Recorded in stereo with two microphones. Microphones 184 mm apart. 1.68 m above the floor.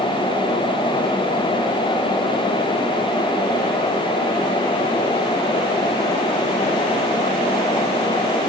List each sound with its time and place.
Only background noise.